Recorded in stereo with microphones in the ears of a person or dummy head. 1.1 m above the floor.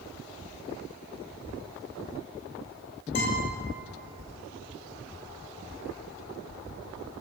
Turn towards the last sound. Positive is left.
turn(degrees=55)  # may be behind; listen again after turning